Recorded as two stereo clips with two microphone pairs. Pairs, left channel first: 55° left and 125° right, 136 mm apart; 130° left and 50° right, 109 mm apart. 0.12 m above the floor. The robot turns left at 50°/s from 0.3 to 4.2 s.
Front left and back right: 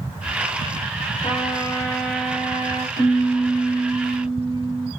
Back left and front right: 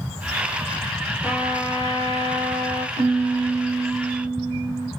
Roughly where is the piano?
Right.